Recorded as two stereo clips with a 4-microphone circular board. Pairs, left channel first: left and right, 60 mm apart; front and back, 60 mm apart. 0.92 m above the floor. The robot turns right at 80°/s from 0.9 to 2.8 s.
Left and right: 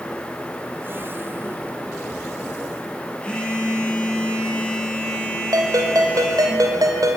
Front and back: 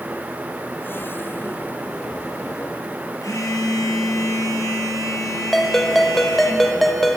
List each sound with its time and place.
3.2 s a phone buzzing: 20° left, 8 m
5.5 s a ringtone: 85° right, 3 m